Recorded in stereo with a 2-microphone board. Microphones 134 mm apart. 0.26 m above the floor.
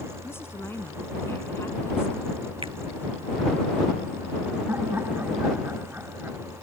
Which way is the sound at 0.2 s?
20° left (ahead or behind).